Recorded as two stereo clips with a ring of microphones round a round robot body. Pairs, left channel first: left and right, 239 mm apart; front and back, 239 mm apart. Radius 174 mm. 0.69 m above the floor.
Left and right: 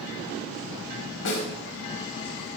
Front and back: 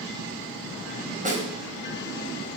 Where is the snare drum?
120° left, 3.5 m.